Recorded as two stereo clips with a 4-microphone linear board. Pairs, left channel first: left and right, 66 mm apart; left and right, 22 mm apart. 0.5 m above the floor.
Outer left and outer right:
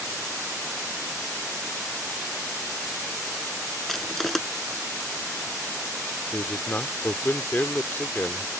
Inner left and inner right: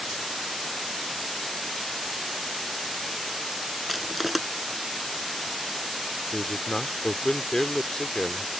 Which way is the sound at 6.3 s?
30° left (ahead or behind).